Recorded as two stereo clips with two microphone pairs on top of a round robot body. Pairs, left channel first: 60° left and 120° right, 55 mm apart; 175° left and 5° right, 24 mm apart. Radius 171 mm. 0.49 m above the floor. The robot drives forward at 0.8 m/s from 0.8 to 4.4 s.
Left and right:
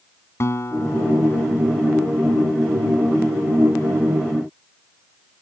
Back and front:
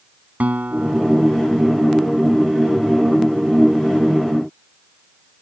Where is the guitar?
15° left; by 1.6 s 20° left.